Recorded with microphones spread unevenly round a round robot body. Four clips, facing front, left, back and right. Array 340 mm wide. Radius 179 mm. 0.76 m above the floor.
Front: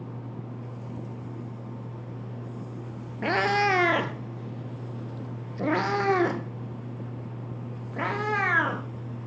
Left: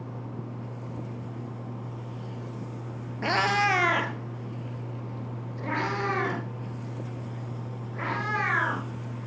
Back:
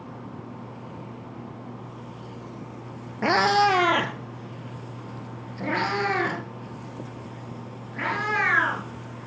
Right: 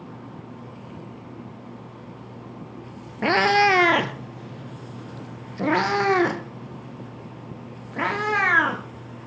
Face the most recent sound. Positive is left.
turn(degrees=-85)